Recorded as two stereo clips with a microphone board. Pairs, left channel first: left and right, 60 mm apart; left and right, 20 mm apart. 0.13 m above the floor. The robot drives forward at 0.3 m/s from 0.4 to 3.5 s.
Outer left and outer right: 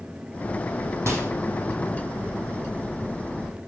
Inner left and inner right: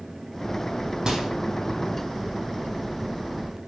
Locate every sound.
1.1 s a microwave: 45° right (ahead or behind), 4 m